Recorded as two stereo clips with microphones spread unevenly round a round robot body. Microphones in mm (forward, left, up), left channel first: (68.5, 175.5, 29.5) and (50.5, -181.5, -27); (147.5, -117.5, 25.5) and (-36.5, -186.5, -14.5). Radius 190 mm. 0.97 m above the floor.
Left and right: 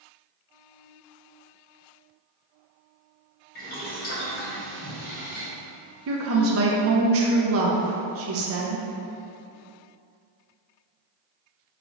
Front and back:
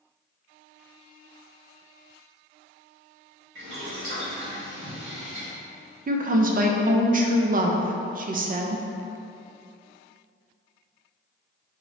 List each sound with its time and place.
3.5 s boiling: 155° left, 1.0 m
6.1 s a woman speaking: 135° right, 0.5 m